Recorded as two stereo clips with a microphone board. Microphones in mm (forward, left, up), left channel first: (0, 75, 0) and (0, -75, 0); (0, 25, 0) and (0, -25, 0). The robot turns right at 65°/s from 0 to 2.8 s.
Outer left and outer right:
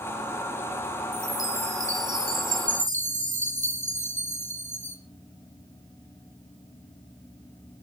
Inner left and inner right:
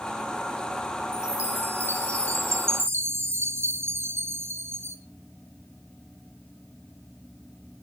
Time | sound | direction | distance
1.1 | a chime | 170° right | 2.5 m